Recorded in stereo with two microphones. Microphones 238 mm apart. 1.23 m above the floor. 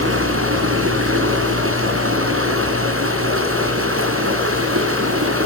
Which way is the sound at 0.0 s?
65° right (ahead or behind).